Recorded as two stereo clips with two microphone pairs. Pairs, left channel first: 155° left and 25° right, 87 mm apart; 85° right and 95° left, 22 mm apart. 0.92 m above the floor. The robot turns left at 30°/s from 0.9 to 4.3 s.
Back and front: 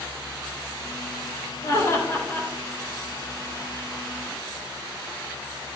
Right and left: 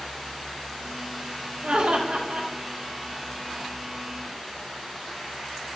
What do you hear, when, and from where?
1.6 s laughter: 110° left, 2.5 m; by 2.5 s 85° left, 2.5 m